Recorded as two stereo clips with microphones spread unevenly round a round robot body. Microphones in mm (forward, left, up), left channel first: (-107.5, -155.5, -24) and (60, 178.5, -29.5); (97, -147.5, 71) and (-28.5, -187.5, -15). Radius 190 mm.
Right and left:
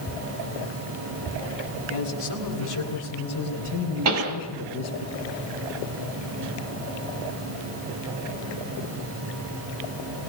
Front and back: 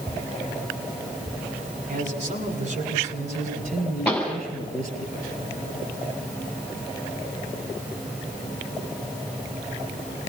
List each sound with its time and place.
1.9 s a man speaking: 155° right, 7.5 m; by 5.0 s 145° right, 9.5 m
4.0 s a pop: 110° left, 5.5 m